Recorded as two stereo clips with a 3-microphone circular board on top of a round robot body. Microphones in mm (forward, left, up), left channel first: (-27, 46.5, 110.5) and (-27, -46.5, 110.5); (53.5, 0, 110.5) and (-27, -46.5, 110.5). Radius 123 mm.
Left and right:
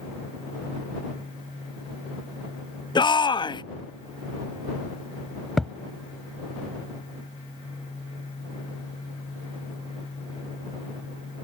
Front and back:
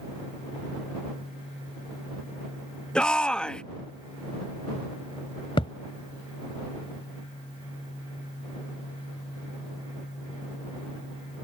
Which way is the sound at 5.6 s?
Straight ahead.